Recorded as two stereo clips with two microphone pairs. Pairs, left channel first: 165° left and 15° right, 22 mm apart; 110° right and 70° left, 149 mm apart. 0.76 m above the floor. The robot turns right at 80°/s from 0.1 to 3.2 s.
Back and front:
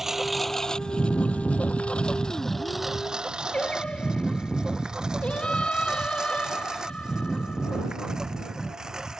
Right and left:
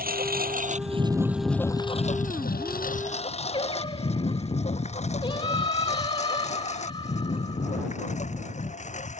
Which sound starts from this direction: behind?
Singing, at 3.5 s.